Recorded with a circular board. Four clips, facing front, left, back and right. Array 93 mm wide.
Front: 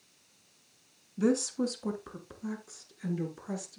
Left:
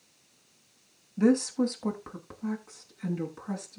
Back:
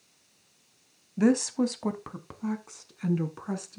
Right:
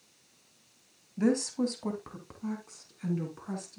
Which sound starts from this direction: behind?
A woman speaking, at 1.2 s.